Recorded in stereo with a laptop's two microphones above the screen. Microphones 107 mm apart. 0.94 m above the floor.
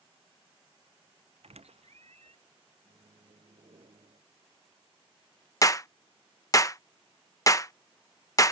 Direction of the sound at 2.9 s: 65° right (ahead or behind).